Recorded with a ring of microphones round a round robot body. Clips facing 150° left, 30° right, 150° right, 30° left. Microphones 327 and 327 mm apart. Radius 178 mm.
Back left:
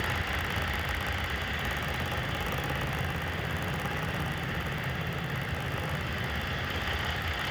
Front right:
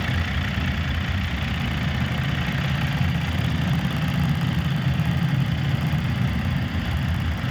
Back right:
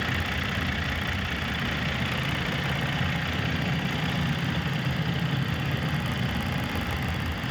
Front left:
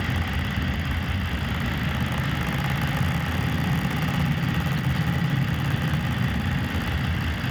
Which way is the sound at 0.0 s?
45° right.